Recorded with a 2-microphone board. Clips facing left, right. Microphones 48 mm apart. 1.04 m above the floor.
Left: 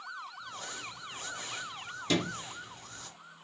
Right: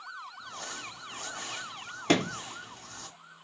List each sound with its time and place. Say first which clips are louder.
0.4 s crumpling: right 1 dB; 70° right (ahead or behind), 1.6 m
2.1 s a sliding door: right 5 dB; 55° right (ahead or behind), 0.7 m